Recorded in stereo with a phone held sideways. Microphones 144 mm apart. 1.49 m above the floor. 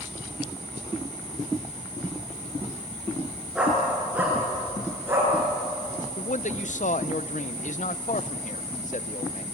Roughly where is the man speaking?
Left.